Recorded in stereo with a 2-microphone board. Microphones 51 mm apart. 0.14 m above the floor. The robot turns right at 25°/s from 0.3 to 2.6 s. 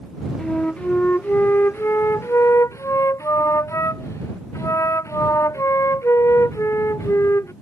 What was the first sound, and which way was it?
A flute, 20° left.